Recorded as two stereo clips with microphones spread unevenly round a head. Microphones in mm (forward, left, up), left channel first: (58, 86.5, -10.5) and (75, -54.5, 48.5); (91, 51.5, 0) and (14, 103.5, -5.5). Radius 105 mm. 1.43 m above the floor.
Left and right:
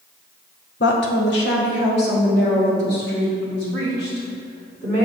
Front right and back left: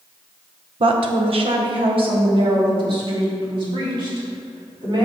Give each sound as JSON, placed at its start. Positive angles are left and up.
{"t": 0.8, "sound": "a woman speaking", "azimuth_deg": 150, "distance_m": 0.6}